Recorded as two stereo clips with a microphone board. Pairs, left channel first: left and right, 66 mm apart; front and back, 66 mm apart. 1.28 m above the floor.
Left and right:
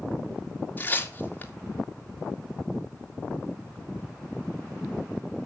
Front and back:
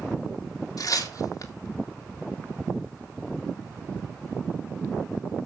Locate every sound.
0.8 s tearing paper: 25° left, 2.5 m